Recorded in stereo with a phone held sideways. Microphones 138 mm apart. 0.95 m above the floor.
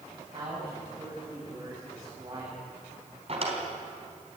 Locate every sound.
0.3 s a man speaking: 45° right (ahead or behind), 6.5 m
3.3 s a drawer: 45° right (ahead or behind), 3.5 m